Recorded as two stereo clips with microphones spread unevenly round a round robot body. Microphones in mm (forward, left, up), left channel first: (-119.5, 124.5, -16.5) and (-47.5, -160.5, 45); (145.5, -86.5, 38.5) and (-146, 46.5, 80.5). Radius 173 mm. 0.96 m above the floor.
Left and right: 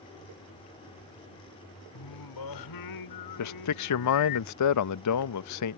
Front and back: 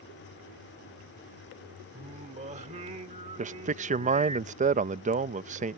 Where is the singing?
85° left.